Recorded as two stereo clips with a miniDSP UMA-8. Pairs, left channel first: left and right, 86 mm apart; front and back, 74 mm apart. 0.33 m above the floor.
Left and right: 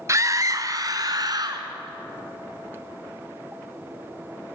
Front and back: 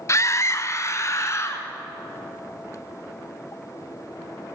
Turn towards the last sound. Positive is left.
turn(degrees=-50)